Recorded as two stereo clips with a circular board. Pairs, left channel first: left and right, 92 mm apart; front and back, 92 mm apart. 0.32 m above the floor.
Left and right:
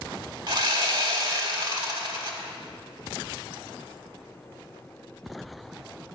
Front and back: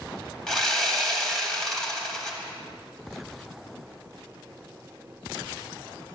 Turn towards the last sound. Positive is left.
turn(degrees=-80)